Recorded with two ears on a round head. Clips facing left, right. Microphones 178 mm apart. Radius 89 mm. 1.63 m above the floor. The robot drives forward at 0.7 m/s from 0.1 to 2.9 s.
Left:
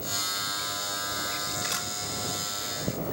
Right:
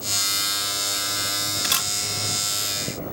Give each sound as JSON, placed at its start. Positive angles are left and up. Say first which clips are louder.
{"t": 1.6, "sound": "a camera shutter", "louder": "right 3 dB", "side_deg": -70}